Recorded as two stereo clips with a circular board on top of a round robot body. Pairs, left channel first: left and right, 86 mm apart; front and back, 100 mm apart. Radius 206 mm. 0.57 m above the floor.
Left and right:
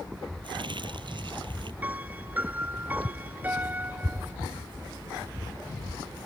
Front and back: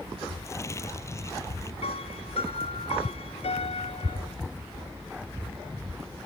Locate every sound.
0.4 s crumpling: 65° right
1.8 s a piano: 20° right